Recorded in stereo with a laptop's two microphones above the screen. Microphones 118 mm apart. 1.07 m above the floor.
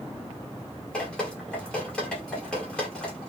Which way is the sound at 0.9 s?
10° left (ahead or behind).